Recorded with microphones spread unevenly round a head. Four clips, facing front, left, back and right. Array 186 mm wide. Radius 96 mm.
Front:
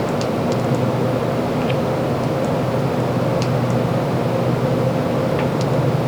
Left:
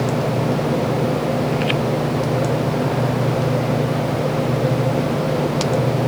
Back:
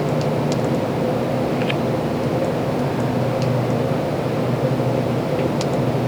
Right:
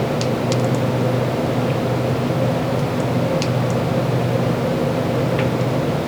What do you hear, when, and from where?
Only background noise.